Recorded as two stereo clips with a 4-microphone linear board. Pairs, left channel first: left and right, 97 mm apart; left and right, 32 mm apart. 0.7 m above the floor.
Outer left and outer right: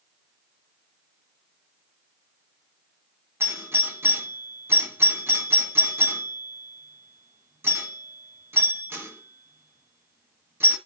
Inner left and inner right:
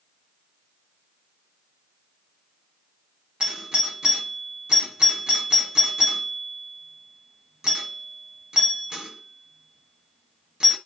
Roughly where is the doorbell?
Right.